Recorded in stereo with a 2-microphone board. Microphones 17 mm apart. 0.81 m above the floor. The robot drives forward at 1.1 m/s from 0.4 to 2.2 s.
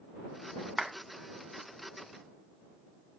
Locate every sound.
0.8 s a clap: 15° right (ahead or behind), 1.9 m